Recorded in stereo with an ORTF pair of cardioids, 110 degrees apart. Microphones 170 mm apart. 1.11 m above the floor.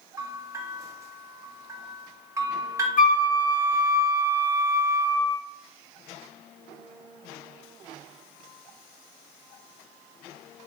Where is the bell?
20° right, 1.2 m.